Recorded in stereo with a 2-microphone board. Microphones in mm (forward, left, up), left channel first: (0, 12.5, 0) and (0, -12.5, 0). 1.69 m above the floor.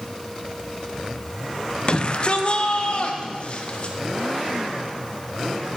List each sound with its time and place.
1.9 s a shout: 35° left (ahead or behind), 0.8 m; by 4.0 s 50° left (ahead or behind), 1.9 m